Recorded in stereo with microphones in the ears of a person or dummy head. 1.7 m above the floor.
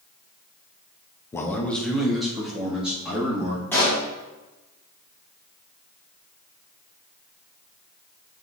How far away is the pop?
About 2.5 m.